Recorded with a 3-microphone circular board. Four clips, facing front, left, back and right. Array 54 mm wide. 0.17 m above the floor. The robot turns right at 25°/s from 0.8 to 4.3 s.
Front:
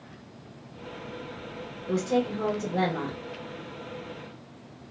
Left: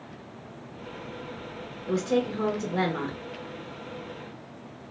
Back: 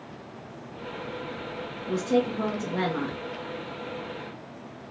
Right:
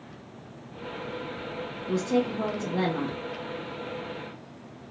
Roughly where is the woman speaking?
Left.